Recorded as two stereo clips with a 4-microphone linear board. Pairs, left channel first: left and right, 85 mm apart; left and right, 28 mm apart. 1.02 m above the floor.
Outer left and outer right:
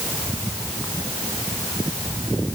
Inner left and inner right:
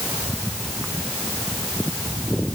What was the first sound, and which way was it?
Only background noise.